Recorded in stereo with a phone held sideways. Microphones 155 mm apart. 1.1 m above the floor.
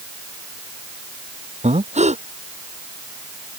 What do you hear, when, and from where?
1.6 s breathing: 45° right (ahead or behind)